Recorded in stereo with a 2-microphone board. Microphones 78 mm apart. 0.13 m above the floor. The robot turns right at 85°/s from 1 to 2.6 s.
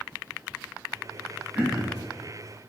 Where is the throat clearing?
30° right, 1.0 m; by 2.0 s 10° left, 1.0 m.